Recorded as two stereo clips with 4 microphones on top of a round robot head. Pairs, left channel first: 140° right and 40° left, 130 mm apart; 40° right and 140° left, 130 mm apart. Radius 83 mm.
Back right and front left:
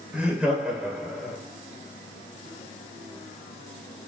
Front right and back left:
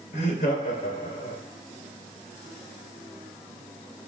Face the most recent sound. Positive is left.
turn(degrees=-50)